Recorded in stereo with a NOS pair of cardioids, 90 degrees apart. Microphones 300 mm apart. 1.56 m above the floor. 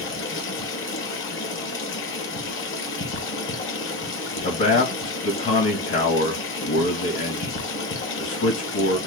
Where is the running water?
45° left, 1.2 m.